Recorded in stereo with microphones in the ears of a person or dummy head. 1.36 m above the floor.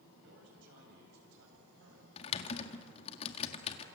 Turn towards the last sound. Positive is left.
turn(degrees=35)  # may be behind; listen again after turning